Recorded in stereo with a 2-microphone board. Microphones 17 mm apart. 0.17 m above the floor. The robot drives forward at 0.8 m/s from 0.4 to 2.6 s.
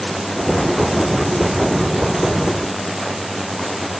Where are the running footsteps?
No running footsteps in this recording.